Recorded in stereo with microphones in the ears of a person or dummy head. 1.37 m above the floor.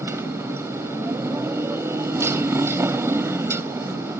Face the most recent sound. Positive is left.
turn(degrees=-10)  # may be behind; listen again after turning